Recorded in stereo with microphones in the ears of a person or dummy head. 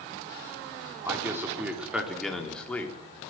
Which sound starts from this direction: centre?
A man speaking, at 1.1 s.